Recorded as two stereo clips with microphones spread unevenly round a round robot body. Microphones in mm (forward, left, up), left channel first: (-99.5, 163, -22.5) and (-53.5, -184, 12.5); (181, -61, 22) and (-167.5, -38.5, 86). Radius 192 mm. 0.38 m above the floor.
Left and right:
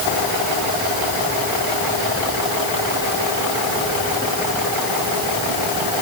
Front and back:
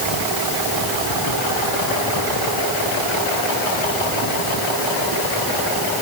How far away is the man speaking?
No man speaking in this recording.